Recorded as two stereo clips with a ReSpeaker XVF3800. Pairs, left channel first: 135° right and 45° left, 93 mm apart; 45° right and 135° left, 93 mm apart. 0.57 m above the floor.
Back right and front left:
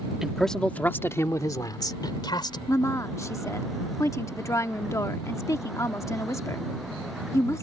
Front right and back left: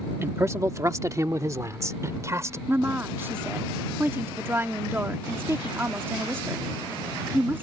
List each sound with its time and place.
0.2 s a man speaking: 120° left; by 2.6 s 170° right
2.7 s a woman speaking: 170° right